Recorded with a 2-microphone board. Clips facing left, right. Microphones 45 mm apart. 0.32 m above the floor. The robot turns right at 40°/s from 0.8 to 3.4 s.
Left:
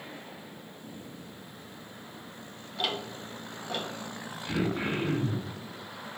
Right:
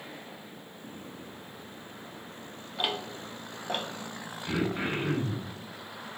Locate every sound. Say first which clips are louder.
2.8 s ticking: even; 15° right (ahead or behind), 0.7 m; by 3.9 s 40° right (ahead or behind), 0.7 m
4.5 s throat clearing: even; 40° right (ahead or behind), 1.3 m